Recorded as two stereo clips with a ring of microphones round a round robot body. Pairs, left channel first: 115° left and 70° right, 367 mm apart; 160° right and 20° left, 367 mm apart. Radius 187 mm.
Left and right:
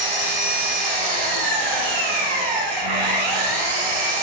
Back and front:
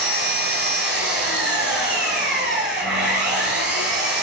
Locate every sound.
0.0 s an engine running: 40° right, 9.5 m